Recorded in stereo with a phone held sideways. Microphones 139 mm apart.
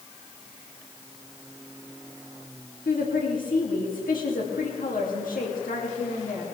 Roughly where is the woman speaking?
Left.